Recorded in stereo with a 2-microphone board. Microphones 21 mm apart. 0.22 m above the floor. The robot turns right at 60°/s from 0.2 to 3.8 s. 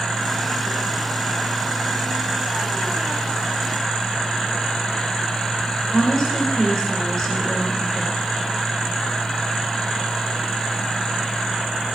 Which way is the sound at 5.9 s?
40° left (ahead or behind).